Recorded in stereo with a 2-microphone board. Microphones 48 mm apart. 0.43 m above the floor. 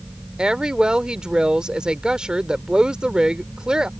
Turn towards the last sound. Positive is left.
turn(degrees=-15)  # may be behind; listen again after turning